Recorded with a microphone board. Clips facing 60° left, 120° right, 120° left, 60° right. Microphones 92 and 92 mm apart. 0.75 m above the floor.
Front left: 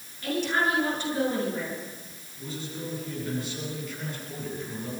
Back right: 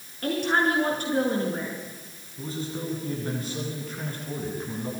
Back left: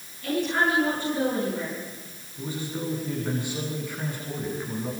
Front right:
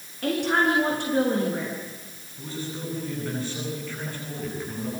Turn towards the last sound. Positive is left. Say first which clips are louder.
# back right 4 dB, back left 2 dB
turn(degrees=-165)